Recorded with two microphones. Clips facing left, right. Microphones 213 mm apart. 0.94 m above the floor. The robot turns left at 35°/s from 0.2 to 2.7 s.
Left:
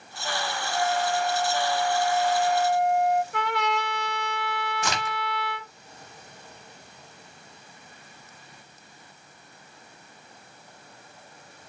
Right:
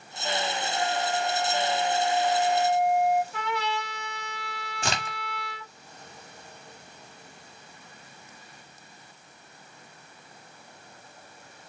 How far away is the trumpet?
About 1.0 m.